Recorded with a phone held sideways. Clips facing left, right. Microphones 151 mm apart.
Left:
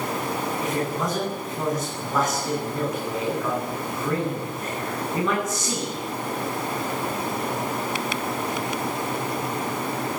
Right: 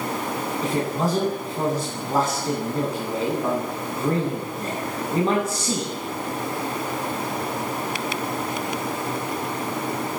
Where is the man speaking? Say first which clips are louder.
Right 4 dB; 30° right (ahead or behind), 9.5 m.